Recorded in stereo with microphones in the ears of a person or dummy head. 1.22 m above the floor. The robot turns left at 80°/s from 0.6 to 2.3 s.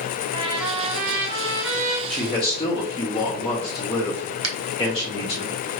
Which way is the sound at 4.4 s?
75° right (ahead or behind).